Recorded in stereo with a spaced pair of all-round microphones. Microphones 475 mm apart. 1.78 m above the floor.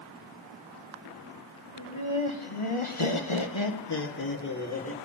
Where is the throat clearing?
I don't hear throat clearing.